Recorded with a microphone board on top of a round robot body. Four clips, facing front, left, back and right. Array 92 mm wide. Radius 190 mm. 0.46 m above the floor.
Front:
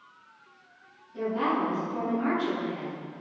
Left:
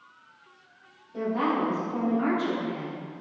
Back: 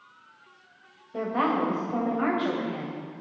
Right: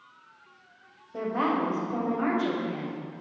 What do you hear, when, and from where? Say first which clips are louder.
1.1 s a woman speaking: left 1 dB, back 2 dB; 155° right, 3.5 m